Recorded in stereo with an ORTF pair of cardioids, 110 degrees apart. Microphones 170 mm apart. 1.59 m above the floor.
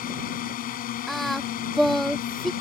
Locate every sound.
0.0 s a drone: 65° left
1.1 s singing: straight ahead